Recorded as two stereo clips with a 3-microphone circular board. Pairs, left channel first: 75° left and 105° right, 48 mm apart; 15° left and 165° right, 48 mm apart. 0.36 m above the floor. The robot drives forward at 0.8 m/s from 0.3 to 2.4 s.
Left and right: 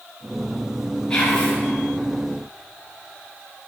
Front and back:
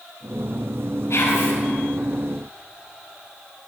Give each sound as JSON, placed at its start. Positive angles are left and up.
{"t": 1.1, "sound": "whispering", "azimuth_deg": 0, "distance_m": 6.0}